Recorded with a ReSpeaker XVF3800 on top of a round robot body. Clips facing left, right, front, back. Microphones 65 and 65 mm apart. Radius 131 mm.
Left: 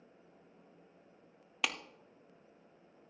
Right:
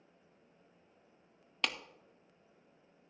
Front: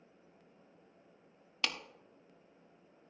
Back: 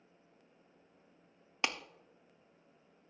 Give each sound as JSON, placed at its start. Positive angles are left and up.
{"t": 1.6, "sound": "a clap", "azimuth_deg": 165, "distance_m": 1.1}